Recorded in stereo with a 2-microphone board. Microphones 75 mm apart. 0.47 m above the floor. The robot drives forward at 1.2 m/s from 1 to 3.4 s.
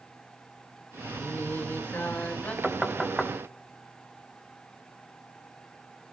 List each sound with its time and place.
1.2 s singing: 35° left (ahead or behind), 1.7 m; by 2.5 s 20° left (ahead or behind), 3 m
2.6 s knocking: centre (ahead or behind), 1.4 m